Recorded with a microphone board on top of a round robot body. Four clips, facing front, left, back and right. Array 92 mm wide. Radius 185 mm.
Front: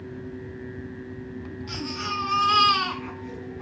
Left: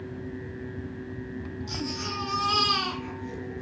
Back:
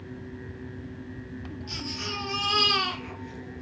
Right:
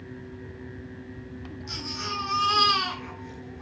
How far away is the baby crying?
About 8.5 m.